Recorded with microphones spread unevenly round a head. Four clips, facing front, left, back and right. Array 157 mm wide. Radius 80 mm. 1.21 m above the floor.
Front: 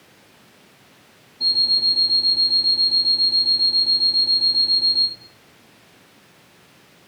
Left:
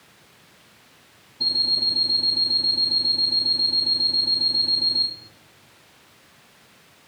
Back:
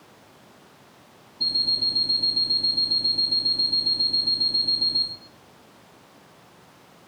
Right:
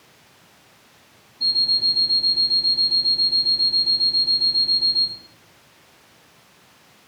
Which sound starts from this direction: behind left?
An alarm clock, at 1.4 s.